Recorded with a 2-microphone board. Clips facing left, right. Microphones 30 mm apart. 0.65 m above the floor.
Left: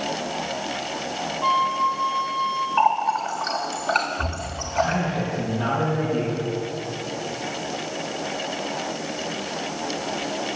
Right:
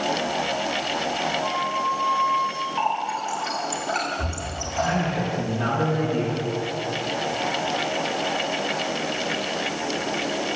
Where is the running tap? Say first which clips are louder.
Left 6 dB; 45° left (ahead or behind), 1.7 m.